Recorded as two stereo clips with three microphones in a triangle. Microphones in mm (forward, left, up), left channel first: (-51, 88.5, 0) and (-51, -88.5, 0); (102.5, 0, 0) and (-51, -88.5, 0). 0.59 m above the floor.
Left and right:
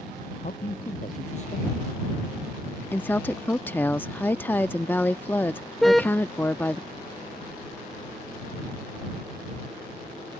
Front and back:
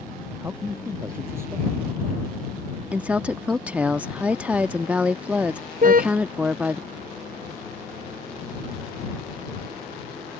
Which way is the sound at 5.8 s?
Straight behind.